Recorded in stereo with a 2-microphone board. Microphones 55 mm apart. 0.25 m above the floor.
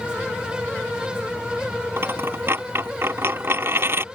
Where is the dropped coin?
50° right (ahead or behind).